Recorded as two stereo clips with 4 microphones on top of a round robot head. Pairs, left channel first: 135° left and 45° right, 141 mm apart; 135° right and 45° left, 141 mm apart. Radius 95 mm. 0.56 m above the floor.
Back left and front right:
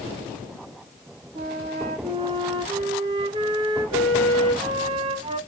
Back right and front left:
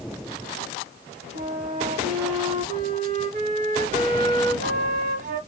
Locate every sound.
1.4 s a flute: 10° left, 0.9 m